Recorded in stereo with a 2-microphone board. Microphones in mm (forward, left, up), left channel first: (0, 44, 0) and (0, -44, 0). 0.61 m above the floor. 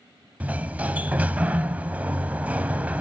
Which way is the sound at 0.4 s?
15° right (ahead or behind).